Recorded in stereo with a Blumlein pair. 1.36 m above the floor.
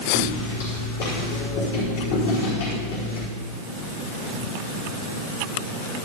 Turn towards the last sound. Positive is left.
turn(degrees=50)